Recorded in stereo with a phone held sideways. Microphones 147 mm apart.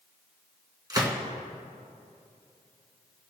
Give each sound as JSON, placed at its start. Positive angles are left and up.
{"t": 0.9, "sound": "a gunshot", "side_deg": -25, "distance_m": 2.5}